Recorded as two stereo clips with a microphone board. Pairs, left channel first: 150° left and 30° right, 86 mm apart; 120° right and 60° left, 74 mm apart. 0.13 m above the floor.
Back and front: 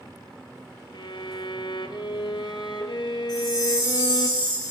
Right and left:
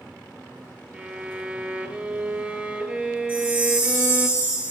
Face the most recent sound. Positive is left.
turn(degrees=-175)